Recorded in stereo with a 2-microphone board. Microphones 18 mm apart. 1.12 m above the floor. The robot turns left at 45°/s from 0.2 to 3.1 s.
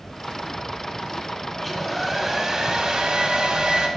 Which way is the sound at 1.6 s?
20° left.